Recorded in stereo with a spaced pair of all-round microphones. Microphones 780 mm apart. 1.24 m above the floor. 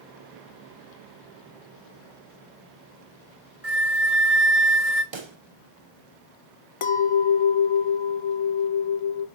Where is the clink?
45° left (ahead or behind), 0.7 m.